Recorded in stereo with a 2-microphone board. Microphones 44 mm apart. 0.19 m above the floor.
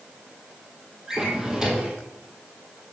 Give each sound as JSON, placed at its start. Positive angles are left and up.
{"t": 1.1, "sound": "a drawer", "side_deg": -15, "distance_m": 1.5}